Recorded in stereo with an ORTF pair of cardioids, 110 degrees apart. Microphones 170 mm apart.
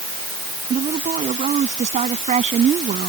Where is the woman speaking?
45° right.